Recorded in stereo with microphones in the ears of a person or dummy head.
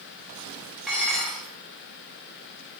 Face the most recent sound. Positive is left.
turn(degrees=0)  # may be behind; listen again after turning